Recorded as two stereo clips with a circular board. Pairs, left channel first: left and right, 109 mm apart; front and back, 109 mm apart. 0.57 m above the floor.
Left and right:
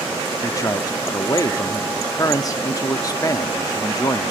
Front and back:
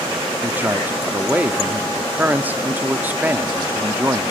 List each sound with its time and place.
0.4 s a man speaking: 115° left, 0.7 m